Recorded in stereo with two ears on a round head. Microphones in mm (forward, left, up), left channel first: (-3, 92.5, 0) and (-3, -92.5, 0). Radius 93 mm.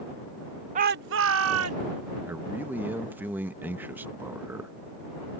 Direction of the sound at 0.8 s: 35° right (ahead or behind).